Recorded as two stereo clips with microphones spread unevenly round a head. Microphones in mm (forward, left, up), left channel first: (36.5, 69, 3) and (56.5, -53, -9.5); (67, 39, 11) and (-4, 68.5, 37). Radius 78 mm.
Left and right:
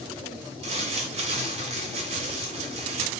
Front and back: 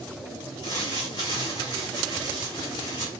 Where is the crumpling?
95° right, 1.8 m.